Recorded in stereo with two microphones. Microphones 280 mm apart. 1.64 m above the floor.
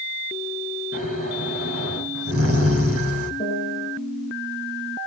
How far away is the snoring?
About 6.5 m.